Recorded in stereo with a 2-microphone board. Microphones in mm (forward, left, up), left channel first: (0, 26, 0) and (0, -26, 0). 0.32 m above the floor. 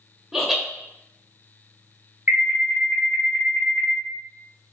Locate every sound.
0.3 s laughter: 5° right (ahead or behind), 0.9 m
2.3 s an alarm: 40° right (ahead or behind), 1.2 m